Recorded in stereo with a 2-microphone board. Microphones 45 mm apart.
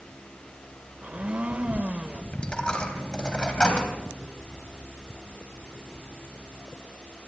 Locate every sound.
1.0 s a blender: 30° right (ahead or behind), 1.2 m
2.3 s a dropped coin: 20° left (ahead or behind), 3 m